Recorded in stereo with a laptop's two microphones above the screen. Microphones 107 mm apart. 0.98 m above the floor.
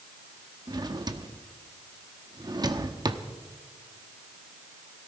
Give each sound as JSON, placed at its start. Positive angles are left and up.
{"t": 0.7, "sound": "a drawer", "side_deg": -40, "distance_m": 0.9}